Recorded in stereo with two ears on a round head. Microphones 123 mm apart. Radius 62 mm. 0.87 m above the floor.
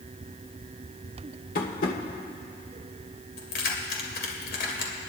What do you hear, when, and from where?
1.6 s tapping: 70° left (ahead or behind), 1.5 m
3.4 s keys jangling: 80° left, 2 m